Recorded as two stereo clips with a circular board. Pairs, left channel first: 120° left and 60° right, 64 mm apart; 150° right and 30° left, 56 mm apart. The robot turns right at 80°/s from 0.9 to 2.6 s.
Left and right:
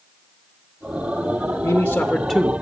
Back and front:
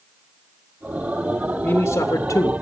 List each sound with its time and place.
1.6 s a man speaking: 170° left, 0.6 m; by 2.5 s 120° right, 0.6 m